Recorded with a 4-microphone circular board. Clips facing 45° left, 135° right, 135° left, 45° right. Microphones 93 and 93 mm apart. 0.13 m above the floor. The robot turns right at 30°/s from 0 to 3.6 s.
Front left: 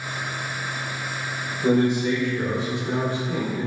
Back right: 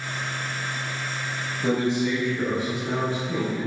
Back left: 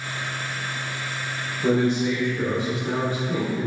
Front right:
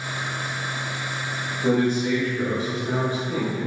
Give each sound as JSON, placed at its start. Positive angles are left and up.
{"t": 1.6, "sound": "a man speaking", "azimuth_deg": -160, "distance_m": 1.7}